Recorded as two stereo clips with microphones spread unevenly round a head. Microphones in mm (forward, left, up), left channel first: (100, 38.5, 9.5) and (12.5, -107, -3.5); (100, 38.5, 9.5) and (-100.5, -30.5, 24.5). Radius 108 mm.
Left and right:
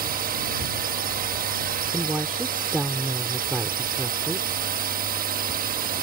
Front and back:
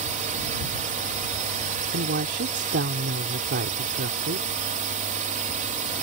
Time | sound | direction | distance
0.0 | a drone | 110° right | ?
1.9 | a woman speaking | 155° left | ?